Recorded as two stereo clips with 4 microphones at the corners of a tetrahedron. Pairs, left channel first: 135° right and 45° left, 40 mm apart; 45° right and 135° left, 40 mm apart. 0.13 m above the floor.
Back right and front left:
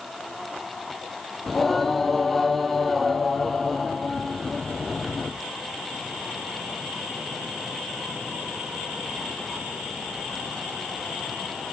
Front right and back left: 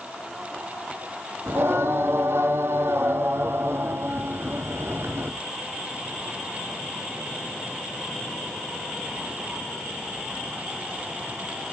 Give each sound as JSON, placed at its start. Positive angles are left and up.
{"t": 1.5, "sound": "singing", "azimuth_deg": 140, "distance_m": 1.5}